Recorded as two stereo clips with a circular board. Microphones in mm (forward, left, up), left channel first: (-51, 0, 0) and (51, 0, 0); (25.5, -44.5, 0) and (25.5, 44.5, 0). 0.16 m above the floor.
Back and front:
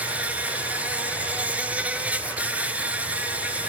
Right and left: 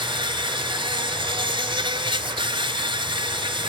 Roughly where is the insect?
Left.